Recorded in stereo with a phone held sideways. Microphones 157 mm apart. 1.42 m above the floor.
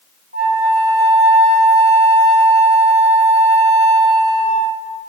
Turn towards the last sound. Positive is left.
turn(degrees=-85)